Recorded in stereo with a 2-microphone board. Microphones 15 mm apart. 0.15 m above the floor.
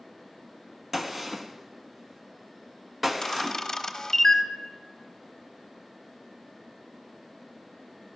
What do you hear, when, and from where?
0.9 s a gunshot: 20° right (ahead or behind), 0.7 m
3.2 s a camera shutter: 25° left (ahead or behind), 0.8 m